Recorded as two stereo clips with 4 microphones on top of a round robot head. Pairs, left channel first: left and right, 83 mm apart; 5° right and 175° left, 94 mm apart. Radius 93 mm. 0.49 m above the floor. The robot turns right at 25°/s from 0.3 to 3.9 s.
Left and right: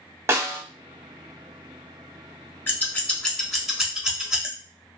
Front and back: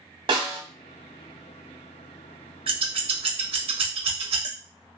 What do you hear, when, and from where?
0.3 s a snare drum: 145° right, 1.0 m; by 0.6 s 140° right, 1.0 m
2.7 s scissors: 160° left, 1.1 m; by 4.5 s 170° right, 1.1 m